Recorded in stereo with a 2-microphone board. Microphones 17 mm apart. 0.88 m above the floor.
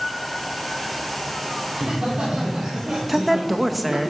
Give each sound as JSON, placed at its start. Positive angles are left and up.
{"t": 1.7, "sound": "laughter", "side_deg": -60, "distance_m": 3.0}
{"t": 3.1, "sound": "a woman speaking", "side_deg": -5, "distance_m": 0.6}